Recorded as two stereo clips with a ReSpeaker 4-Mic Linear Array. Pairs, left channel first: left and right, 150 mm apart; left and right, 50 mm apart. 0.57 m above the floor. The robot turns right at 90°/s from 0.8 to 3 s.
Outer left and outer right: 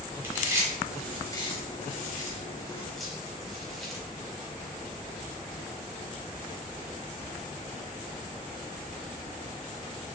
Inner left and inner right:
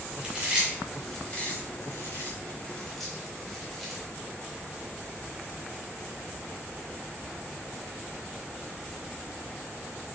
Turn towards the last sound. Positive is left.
turn(degrees=0)  # may be behind; listen again after turning